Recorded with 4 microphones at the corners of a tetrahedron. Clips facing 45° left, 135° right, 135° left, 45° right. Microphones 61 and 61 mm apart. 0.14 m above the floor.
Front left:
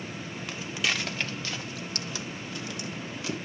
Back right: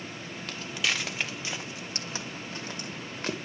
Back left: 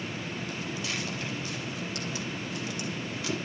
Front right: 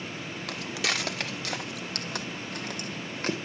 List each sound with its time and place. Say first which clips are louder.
0.5 s footsteps: even, front right 7 dB; 35° right, 2.0 m; by 3.4 s 90° right, 3 m